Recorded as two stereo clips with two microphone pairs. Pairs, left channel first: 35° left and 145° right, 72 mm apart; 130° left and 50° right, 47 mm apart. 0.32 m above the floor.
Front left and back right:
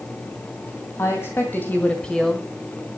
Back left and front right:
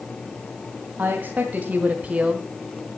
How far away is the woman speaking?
About 2.5 m.